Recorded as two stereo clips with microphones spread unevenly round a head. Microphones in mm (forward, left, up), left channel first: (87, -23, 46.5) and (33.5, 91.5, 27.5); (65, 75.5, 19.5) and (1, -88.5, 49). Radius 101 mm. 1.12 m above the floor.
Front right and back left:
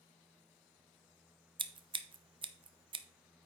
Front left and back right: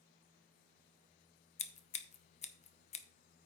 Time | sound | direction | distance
1.6 | scissors | 95° left | 0.9 m